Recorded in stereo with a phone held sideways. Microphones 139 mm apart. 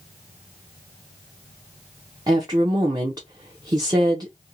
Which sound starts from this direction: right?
A woman speaking, at 2.3 s.